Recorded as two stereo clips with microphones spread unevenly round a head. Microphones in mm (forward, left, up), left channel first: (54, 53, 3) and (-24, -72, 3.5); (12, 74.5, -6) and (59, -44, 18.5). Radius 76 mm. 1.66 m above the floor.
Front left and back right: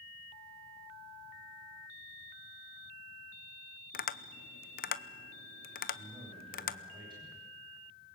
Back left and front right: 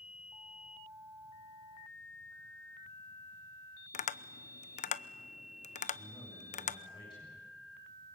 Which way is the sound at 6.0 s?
175° left.